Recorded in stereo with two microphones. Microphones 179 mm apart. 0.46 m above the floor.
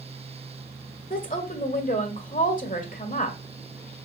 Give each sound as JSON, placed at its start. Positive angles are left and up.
{"t": 1.1, "sound": "a woman speaking", "side_deg": 50, "distance_m": 1.4}